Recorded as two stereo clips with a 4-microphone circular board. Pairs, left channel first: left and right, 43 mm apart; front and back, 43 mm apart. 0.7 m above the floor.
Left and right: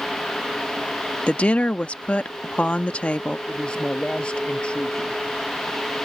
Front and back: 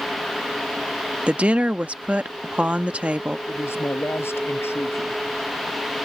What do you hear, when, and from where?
1.3 s a woman speaking: 130° left
3.5 s a man speaking: 25° left